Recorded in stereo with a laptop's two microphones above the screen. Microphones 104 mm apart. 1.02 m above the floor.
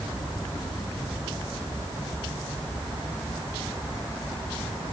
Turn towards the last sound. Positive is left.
No sound to turn to.